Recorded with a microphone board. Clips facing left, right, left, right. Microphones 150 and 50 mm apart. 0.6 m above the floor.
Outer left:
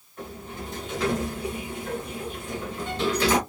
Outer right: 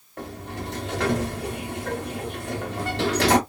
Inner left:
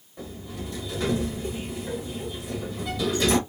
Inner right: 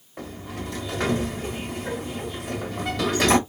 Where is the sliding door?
75° right (ahead or behind), 0.8 m.